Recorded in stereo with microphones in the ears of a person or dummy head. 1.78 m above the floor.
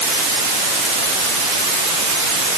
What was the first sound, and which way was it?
Only background noise.